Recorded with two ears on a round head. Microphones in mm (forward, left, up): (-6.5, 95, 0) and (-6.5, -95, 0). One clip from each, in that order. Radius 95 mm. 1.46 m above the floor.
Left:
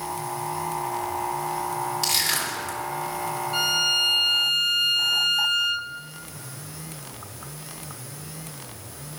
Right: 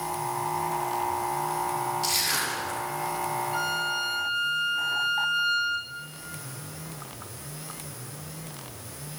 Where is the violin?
35° left (ahead or behind), 0.8 m.